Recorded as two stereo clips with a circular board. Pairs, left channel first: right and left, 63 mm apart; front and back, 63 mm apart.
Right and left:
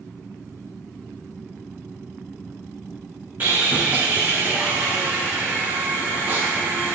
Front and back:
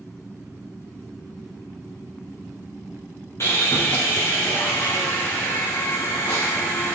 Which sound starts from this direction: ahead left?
Sawing, at 3.4 s.